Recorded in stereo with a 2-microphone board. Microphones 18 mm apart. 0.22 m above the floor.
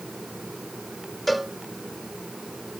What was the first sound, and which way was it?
A cowbell, 10° right (ahead or behind).